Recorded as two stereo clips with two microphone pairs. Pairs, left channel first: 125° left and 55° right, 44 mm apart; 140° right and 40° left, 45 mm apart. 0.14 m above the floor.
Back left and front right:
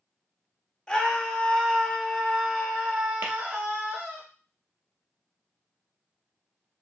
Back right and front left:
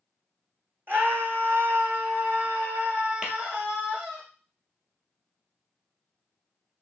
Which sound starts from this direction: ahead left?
A scream, at 0.9 s.